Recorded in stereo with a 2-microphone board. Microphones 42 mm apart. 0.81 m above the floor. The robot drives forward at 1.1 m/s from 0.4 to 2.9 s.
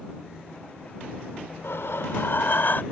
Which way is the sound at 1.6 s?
85° left.